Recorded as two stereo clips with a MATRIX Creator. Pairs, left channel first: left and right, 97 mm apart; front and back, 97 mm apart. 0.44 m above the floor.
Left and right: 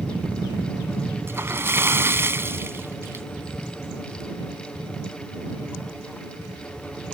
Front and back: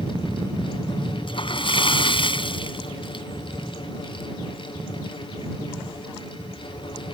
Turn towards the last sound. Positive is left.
turn(degrees=-25)